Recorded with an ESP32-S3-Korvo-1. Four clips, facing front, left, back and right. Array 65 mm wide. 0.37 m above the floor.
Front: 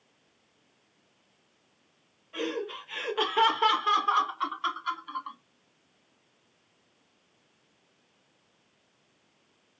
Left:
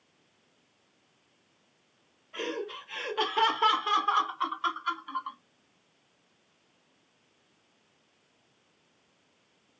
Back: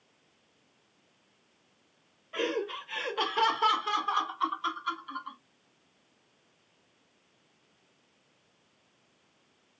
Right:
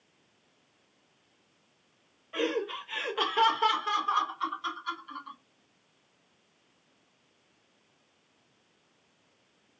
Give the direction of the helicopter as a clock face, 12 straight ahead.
I don't hear a helicopter.